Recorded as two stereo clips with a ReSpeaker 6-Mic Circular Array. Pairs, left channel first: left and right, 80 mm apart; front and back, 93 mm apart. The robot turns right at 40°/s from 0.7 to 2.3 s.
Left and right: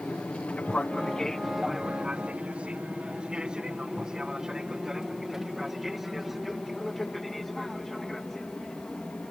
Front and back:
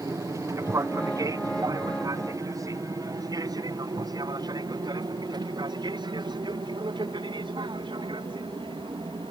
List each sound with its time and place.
0.0 s an aircraft: 160° left; by 9.3 s 175° left